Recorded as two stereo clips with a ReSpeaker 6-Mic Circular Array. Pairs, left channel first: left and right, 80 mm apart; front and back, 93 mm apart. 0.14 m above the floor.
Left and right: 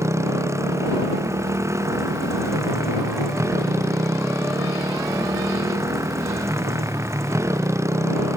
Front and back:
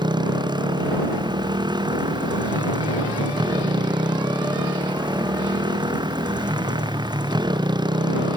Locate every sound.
0.0 s a motorcycle: 140° right